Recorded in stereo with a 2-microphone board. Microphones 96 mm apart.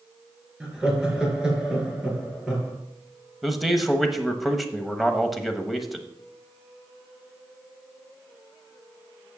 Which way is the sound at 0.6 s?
10° right (ahead or behind).